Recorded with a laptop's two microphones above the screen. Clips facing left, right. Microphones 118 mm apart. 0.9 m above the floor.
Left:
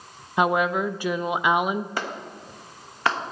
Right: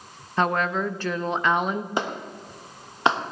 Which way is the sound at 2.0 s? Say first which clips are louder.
Right 3 dB; 20° right (ahead or behind).